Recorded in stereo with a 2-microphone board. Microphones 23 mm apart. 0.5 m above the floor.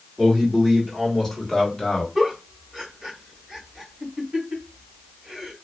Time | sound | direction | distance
0.2 | a man speaking | 10° right (ahead or behind) | 1.3 m
2.1 | a giggle | 15° right (ahead or behind) | 1.3 m